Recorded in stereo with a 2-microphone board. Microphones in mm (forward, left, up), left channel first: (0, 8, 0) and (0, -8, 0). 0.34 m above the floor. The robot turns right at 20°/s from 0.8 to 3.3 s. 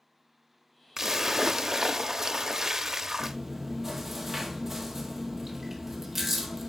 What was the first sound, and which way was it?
A splash, 120° right.